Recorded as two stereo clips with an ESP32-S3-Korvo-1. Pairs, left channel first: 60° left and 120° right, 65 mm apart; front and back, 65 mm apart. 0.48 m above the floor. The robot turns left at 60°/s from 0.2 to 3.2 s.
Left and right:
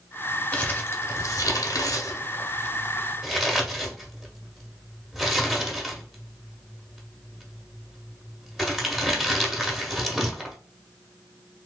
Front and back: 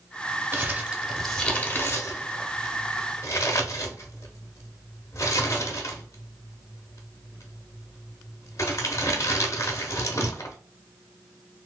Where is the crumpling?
130° left, 1.0 m; by 10.6 s 30° right, 1.0 m.